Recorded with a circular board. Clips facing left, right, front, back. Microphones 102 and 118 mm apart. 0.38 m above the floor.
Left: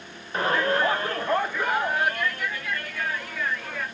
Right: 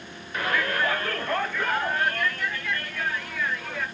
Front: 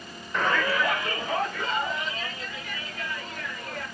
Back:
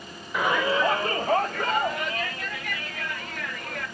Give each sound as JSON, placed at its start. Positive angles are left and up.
{"t": 0.3, "sound": "a shout", "azimuth_deg": 100, "distance_m": 0.9}